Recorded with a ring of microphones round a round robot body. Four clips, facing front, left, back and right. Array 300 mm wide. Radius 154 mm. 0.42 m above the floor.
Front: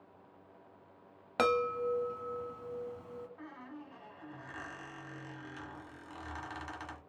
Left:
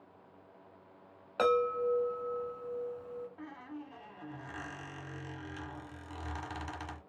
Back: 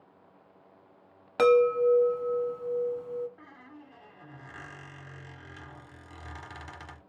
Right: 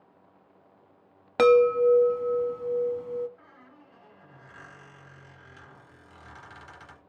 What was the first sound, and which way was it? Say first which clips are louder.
A chime: right 11 dB, back 10 dB; 85° right.